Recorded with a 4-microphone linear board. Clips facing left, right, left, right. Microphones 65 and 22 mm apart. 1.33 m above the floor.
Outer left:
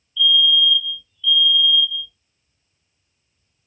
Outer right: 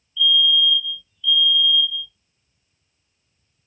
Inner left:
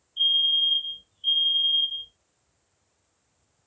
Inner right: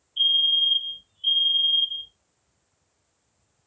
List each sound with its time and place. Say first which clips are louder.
0.2 s a fire alarm: outer left 1 dB, inner right 1 dB; 25° right (ahead or behind), 1.7 m